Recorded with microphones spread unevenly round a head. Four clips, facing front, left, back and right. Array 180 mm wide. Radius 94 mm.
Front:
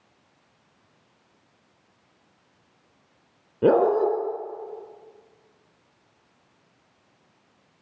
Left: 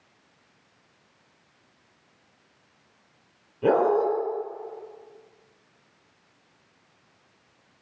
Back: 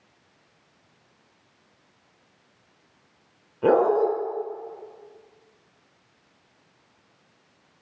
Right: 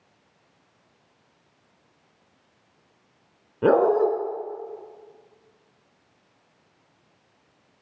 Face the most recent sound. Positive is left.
turn(degrees=-25)